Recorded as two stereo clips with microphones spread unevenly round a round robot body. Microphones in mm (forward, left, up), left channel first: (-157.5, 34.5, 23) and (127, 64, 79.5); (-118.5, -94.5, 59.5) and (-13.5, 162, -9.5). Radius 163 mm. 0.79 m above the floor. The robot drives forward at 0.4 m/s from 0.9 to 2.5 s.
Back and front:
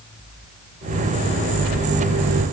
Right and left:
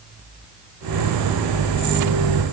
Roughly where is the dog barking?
No dog barking in this recording.